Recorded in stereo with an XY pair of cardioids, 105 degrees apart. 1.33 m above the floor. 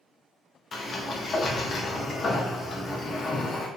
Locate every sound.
0.7 s a sliding door: 45° left, 0.5 m